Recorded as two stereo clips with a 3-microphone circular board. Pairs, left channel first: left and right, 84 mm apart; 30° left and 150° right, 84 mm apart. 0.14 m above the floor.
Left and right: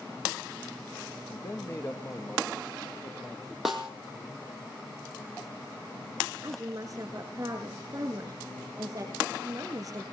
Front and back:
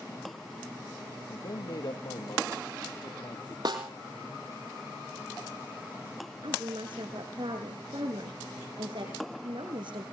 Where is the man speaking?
35° left, 3 m.